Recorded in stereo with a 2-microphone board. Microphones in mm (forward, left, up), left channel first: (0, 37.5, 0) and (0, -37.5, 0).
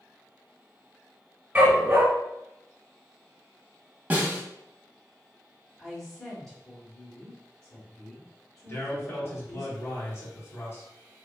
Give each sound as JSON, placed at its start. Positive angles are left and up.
{"t": 1.6, "sound": "a dog barking", "side_deg": -20, "distance_m": 1.2}
{"t": 4.1, "sound": "a snare drum", "side_deg": -20, "distance_m": 0.8}
{"t": 5.8, "sound": "a woman speaking", "side_deg": 5, "distance_m": 1.2}
{"t": 8.7, "sound": "a man speaking", "side_deg": 35, "distance_m": 1.1}